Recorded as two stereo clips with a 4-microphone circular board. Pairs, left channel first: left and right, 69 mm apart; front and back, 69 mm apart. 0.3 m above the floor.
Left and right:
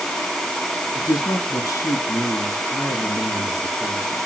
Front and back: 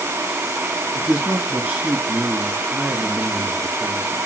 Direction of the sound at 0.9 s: 105° left.